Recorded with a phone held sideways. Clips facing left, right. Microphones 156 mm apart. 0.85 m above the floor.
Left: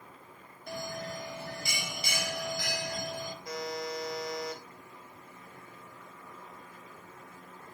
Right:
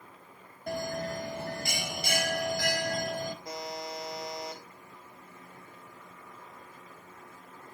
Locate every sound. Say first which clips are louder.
0.7 s a bell: right 5 dB; 55° right (ahead or behind), 0.7 m
3.5 s a buzzer: left 2 dB; 25° right (ahead or behind), 1.6 m